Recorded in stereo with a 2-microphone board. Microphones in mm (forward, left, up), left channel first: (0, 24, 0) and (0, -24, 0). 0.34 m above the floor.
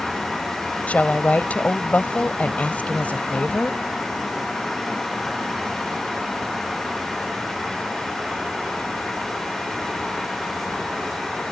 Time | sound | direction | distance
0.9 | a woman speaking | 30° left (ahead or behind) | ?